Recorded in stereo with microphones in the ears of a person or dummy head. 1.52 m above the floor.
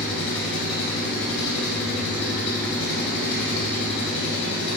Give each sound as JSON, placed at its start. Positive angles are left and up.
{"t": 0.0, "sound": "an engine running", "side_deg": 60, "distance_m": 2.5}